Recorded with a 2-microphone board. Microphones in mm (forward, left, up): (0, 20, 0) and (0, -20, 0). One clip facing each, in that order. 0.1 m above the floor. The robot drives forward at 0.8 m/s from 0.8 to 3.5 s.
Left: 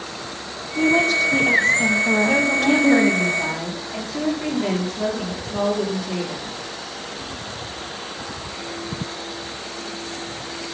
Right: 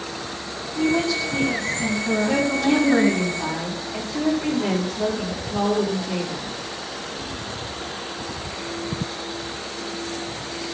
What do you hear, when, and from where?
0.8 s a woman speaking: 55° left (ahead or behind), 3.5 m; by 3.2 s 70° left (ahead or behind), 3 m
2.3 s a woman speaking: 45° left (ahead or behind), 9.5 m; by 6.5 s 40° left (ahead or behind), 10 m